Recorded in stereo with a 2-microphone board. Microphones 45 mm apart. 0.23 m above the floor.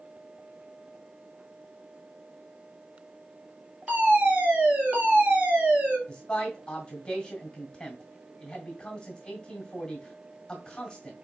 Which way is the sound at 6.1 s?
20° left (ahead or behind).